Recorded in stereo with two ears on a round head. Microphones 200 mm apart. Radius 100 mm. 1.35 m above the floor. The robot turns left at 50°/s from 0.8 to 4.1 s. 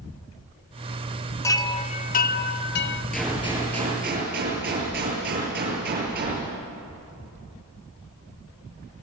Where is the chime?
165° left, 0.5 m; by 3.0 s 85° left, 0.5 m.